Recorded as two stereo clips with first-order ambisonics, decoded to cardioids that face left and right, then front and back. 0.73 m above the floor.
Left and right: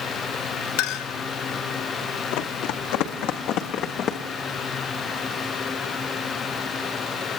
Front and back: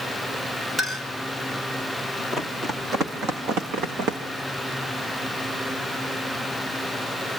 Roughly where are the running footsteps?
Left.